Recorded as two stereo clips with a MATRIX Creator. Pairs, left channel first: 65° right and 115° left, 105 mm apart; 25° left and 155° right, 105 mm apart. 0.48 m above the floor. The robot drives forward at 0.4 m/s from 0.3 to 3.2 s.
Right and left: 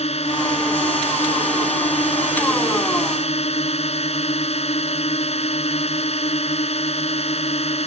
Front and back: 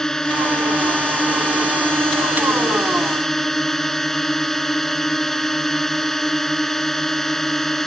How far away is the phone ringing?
No phone ringing in this recording.